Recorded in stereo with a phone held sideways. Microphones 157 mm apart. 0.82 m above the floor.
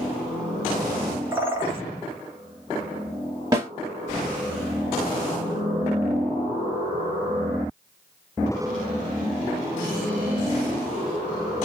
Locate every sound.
1.3 s a bird: 15° right (ahead or behind), 1.4 m
3.5 s a snare drum: 25° right (ahead or behind), 1.8 m